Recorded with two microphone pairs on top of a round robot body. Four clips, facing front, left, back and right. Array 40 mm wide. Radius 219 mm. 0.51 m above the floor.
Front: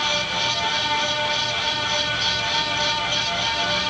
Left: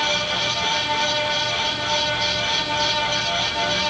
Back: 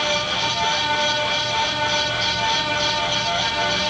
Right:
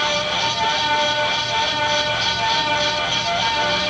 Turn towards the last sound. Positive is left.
No sound to turn to.